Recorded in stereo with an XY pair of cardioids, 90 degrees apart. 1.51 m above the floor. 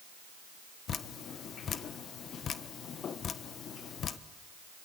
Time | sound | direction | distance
0.9 | dripping | 60° left | 1.2 m